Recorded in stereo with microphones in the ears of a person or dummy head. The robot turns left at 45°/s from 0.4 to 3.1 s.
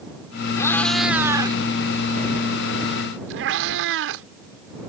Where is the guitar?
I don't hear a guitar.